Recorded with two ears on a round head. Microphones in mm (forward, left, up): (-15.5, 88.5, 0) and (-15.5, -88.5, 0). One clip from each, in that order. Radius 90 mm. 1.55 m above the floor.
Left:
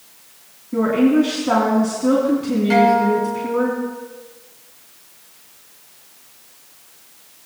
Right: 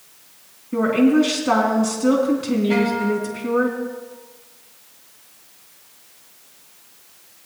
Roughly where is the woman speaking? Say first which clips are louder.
Left 1 dB; right.